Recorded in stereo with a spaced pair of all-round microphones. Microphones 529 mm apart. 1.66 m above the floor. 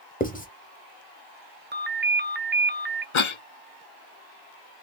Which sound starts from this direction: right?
A ringtone, at 1.7 s.